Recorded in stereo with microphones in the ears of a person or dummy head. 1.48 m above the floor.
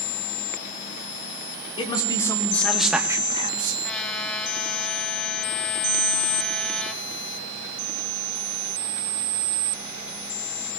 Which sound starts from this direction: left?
A man speaking, at 1.8 s.